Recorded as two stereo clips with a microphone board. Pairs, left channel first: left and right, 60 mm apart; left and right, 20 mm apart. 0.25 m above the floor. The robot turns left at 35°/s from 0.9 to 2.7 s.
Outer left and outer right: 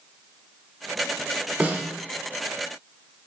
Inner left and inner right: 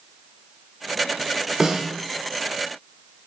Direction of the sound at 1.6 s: 30° right (ahead or behind).